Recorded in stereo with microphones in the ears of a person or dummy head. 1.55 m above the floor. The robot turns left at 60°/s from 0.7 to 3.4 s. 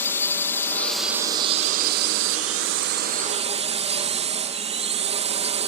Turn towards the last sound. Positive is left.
turn(degrees=-150)